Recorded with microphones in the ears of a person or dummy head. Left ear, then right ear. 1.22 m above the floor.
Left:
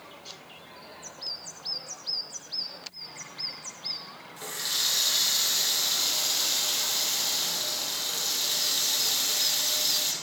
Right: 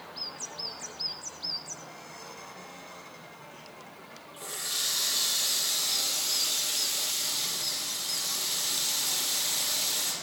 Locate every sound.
4.4 s a running tap: 10° left (ahead or behind), 0.7 m